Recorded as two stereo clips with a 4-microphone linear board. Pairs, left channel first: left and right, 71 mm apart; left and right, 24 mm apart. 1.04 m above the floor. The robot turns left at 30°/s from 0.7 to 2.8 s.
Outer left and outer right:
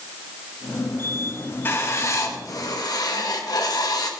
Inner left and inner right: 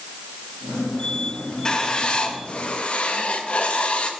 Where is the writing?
145° left, 1.8 m; by 4.1 s 110° left, 1.8 m.